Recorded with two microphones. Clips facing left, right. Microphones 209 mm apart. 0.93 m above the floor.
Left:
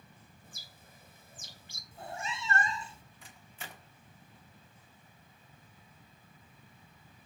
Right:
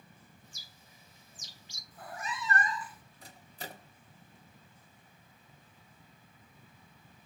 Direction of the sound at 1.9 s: 25° left (ahead or behind).